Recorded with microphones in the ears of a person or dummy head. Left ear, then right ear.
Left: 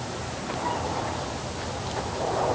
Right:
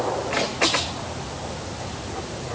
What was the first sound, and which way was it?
Only background noise.